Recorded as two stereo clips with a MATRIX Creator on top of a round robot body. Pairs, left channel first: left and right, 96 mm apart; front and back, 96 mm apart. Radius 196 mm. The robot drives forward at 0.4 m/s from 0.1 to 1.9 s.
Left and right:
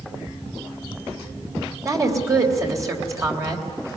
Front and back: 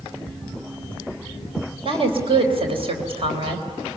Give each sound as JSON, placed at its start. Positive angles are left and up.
{"t": 1.9, "sound": "a woman speaking", "azimuth_deg": -150, "distance_m": 3.5}